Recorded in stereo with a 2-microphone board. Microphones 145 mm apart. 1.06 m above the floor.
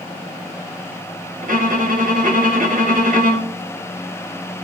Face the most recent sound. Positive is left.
turn(degrees=-70)  # may be behind; listen again after turning